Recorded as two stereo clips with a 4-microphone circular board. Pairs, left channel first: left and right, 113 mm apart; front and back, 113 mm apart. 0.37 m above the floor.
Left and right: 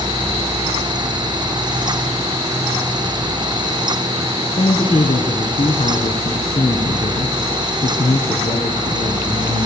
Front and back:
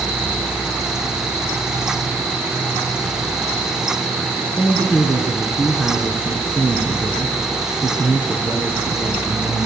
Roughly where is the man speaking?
Left.